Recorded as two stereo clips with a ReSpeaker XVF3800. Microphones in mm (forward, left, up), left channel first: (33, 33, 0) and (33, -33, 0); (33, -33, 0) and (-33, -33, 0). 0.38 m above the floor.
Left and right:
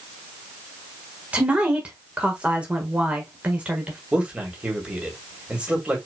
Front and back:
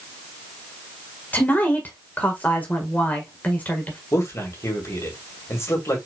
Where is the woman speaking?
35° right, 1.6 m.